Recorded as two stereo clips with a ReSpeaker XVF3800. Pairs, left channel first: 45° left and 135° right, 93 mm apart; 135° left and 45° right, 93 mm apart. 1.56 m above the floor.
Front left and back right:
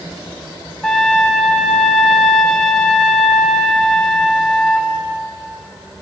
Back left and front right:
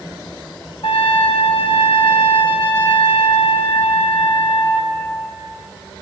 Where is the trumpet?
130° left, 1.0 m.